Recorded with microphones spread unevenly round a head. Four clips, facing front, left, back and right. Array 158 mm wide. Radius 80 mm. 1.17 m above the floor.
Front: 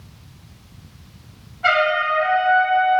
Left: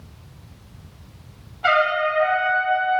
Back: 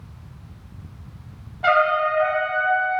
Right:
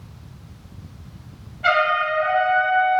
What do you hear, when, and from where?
1.6 s a trumpet: 165° left, 1.5 m